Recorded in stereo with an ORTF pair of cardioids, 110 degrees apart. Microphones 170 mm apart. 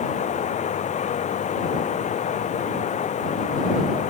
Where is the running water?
45° left.